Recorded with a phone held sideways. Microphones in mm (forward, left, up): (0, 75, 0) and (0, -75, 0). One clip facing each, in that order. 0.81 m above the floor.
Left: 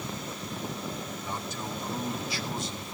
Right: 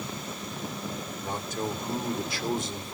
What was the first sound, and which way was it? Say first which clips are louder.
A man speaking: right 4 dB; 50° right (ahead or behind).